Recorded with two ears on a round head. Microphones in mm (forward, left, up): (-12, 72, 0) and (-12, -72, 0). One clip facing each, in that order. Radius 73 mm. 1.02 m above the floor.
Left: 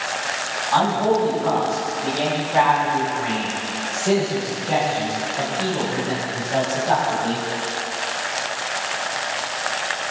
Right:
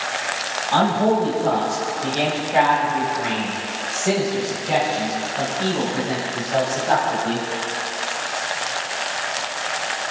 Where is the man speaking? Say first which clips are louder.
Right 1 dB; 35° right (ahead or behind), 6 m; by 7.5 s 15° left (ahead or behind), 7 m.